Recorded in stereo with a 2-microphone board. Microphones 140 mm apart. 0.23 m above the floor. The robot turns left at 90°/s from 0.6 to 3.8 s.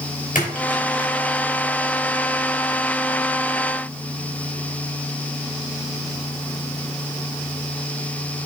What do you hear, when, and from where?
0.3 s a splash: 75° left (ahead or behind), 5 m; by 1.1 s 45° left (ahead or behind), 5 m